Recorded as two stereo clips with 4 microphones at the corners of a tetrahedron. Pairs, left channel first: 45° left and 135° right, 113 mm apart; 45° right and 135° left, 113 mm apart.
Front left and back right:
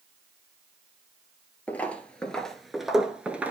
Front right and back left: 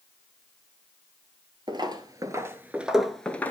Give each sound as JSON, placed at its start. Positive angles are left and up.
{"t": 1.7, "sound": "footsteps", "azimuth_deg": 115, "distance_m": 1.0}